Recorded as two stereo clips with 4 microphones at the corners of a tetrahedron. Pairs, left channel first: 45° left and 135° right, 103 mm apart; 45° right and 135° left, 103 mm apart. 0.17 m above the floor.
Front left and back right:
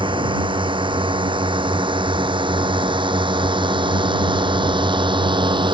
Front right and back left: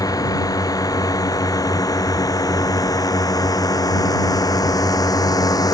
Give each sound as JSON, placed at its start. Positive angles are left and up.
{"t": 0.0, "sound": "a drone", "azimuth_deg": -100}